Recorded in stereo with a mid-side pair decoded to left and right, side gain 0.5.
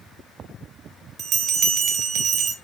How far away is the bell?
About 1.5 m.